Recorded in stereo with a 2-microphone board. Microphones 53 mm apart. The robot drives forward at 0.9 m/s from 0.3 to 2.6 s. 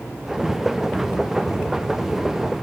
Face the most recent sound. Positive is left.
No sound to turn to.